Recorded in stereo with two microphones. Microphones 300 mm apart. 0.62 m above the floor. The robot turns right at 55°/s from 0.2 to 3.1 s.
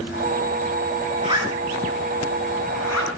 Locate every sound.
1.2 s a zipper: 25° right (ahead or behind), 5 m; by 3.1 s 80° left, 5 m